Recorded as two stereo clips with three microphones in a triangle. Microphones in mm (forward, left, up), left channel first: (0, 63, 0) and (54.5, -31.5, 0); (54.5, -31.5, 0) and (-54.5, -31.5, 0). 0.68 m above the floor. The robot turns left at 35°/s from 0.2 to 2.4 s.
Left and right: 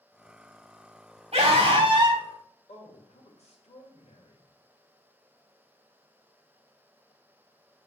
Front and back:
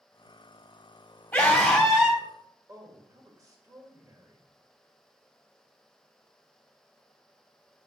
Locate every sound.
1.3 s a scream: 80° right, 4 m; by 2.2 s 115° right, 4 m
2.7 s a man speaking: 120° left, 2 m